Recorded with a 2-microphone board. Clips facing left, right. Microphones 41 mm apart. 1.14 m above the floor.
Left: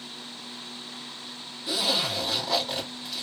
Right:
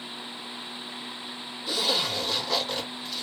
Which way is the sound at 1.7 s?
10° left (ahead or behind).